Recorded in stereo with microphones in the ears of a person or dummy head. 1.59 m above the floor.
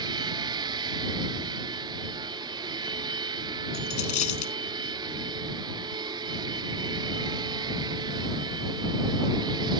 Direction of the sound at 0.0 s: 20° right (ahead or behind).